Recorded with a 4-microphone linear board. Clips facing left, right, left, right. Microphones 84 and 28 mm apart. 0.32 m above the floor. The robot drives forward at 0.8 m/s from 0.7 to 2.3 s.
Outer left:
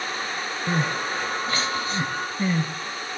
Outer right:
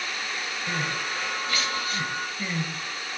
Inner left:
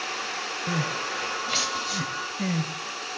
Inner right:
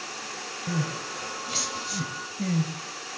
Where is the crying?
30° left (ahead or behind), 1.1 m; by 2.7 s 25° left (ahead or behind), 1.2 m.